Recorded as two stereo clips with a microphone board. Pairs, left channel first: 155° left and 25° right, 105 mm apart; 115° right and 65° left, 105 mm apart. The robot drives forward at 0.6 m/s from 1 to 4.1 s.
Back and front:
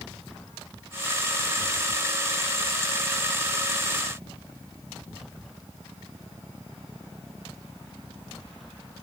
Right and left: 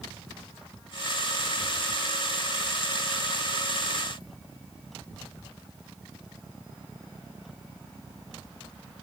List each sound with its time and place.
Only background noise.